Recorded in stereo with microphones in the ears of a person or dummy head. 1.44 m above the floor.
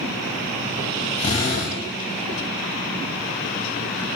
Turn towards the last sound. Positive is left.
turn(degrees=30)  # may be behind; listen again after turning